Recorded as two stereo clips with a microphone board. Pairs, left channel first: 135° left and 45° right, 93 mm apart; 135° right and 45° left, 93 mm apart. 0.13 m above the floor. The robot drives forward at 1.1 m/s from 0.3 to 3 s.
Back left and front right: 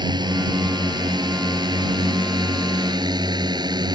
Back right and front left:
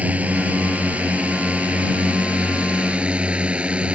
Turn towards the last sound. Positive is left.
turn(degrees=-30)